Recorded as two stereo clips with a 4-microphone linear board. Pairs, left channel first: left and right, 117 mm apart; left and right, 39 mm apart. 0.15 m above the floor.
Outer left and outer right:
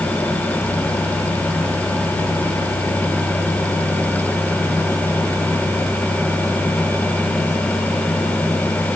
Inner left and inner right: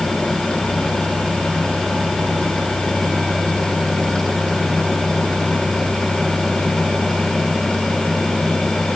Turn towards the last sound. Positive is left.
No sound to turn to.